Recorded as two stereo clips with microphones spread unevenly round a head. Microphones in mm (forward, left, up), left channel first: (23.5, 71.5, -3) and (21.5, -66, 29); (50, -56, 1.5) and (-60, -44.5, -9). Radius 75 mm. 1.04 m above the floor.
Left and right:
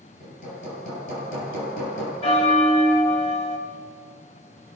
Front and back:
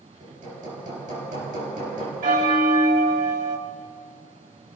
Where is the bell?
145° left, 2 m.